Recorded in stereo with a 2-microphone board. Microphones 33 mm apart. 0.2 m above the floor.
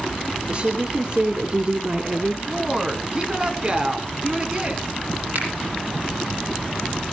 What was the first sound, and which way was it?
A woman speaking, 50° right (ahead or behind).